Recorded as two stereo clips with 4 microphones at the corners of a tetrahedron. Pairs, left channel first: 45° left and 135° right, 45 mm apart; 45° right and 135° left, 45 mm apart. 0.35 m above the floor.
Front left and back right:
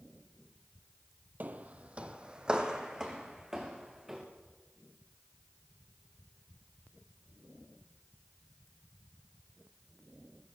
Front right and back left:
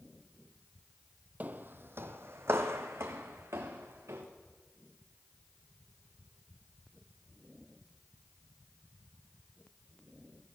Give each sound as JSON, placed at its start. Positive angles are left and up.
{"t": 1.4, "sound": "footsteps", "azimuth_deg": 180, "distance_m": 0.5}